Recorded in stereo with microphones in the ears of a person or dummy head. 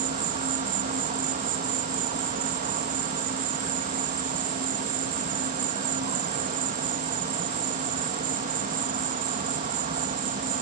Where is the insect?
40° right (ahead or behind).